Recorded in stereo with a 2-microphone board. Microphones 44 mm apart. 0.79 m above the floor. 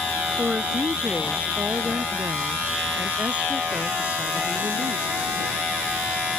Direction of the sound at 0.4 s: 40° right (ahead or behind).